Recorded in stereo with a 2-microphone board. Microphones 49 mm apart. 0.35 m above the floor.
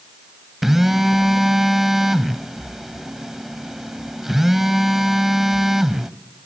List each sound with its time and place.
0.6 s a phone buzzing: 10° right (ahead or behind), 0.9 m